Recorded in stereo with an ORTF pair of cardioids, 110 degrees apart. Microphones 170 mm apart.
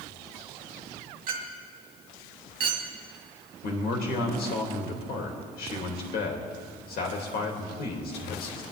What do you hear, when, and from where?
1.3 s a clink: 60° right, 2.0 m
3.6 s a man speaking: 70° left, 2.5 m